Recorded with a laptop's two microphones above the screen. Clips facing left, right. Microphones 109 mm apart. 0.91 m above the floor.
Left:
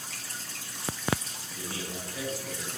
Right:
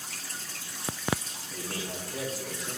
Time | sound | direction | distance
1.5 | a man speaking | 85° right | 5 m